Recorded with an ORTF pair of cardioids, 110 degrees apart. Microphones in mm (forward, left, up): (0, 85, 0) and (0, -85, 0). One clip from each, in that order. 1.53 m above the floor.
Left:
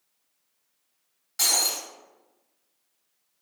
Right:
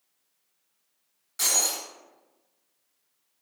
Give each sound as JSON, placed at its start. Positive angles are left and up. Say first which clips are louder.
{"t": 1.4, "sound": "breaking glass", "louder": "left 2 dB", "azimuth_deg": 20, "distance_m": 1.9}